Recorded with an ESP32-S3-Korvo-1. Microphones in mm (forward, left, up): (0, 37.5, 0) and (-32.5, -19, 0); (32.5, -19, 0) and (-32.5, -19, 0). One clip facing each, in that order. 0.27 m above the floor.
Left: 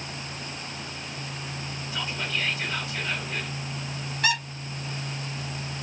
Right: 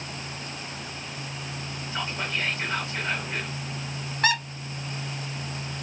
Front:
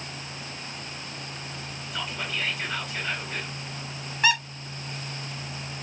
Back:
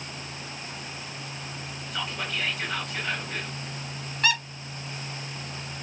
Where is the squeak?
75° right, 1.6 m.